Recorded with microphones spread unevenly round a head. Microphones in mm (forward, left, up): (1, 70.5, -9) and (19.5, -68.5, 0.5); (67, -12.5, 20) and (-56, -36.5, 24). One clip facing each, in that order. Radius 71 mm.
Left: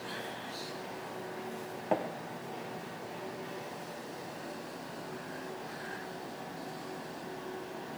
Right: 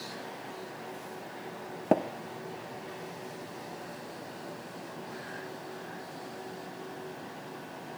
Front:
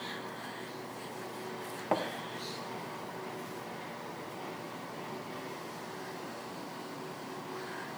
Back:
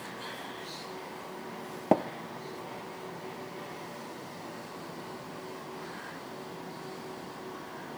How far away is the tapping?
About 1.3 m.